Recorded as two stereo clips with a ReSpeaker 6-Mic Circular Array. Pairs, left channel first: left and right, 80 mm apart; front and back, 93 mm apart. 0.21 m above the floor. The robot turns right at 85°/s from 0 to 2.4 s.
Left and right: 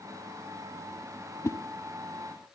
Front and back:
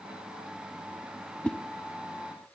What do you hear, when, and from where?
1.4 s a whoosh: 70° left, 0.6 m; by 1.6 s 80° left, 0.6 m